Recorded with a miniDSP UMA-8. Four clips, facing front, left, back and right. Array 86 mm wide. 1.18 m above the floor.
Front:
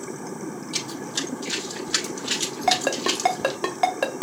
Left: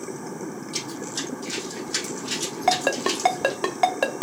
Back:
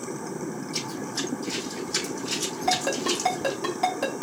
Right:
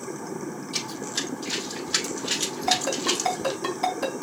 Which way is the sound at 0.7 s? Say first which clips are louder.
Left 1 dB, even; 5° right.